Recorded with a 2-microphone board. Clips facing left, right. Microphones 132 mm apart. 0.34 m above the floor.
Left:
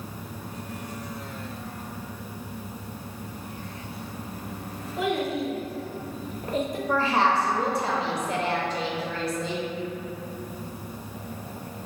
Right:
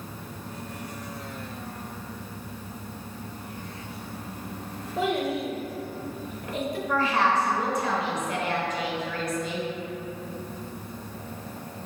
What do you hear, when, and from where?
5.0 s a child speaking: 35° right (ahead or behind), 0.7 m; by 6.8 s 45° left (ahead or behind), 0.9 m
6.9 s a woman speaking: 30° left (ahead or behind), 0.9 m